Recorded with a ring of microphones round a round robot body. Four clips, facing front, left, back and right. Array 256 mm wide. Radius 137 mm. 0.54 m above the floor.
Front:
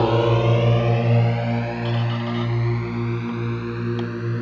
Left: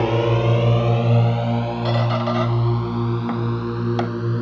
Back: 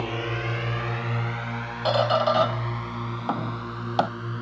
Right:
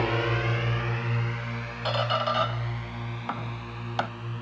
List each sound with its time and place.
0.0 s a drone: 35° left; by 4.4 s 65° left
1.9 s a squeak: 155° left